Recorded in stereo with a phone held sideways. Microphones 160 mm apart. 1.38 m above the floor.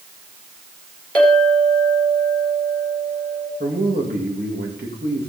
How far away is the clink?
About 3.5 m.